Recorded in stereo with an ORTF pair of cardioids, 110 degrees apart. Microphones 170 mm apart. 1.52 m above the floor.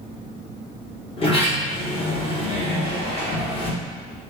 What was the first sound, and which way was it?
A sliding door, 35° left.